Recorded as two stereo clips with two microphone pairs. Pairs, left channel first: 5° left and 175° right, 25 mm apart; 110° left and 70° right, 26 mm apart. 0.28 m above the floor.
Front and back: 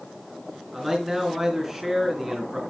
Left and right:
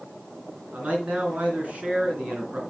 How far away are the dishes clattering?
No dishes clattering in this recording.